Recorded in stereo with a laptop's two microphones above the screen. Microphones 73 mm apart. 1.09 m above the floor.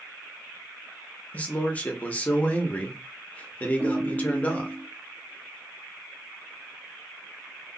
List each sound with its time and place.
1.3 s a man speaking: 20° left (ahead or behind), 0.8 m
3.8 s a ringtone: 25° right (ahead or behind), 1.6 m